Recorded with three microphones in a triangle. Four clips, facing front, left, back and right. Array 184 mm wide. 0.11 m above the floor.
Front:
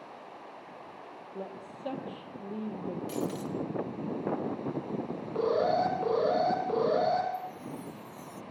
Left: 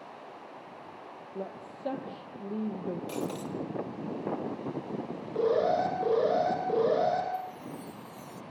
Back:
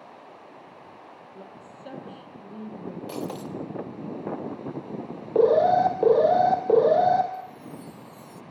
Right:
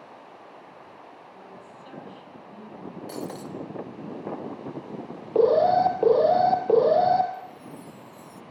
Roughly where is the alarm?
Behind right.